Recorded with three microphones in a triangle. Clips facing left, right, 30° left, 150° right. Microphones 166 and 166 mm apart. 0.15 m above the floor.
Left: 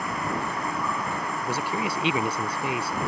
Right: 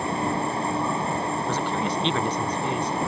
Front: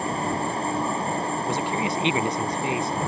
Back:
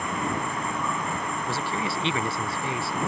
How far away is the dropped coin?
I don't hear a dropped coin.